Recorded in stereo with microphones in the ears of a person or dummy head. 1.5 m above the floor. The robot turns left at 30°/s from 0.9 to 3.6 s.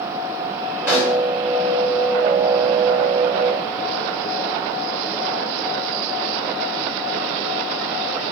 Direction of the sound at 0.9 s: 5° right (ahead or behind).